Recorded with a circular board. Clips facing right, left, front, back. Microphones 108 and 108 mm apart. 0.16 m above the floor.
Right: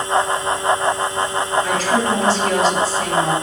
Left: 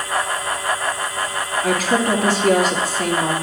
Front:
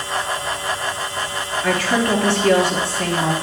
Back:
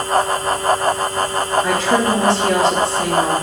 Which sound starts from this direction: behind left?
A woman speaking, at 1.6 s.